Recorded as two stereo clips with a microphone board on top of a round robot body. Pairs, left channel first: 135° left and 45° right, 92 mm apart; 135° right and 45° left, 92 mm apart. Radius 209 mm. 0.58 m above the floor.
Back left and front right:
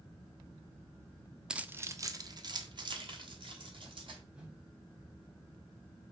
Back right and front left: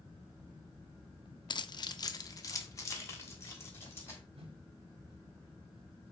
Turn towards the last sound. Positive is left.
turn(degrees=40)